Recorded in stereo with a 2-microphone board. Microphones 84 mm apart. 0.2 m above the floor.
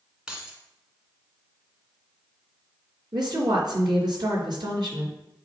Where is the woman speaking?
60° right (ahead or behind), 3 m.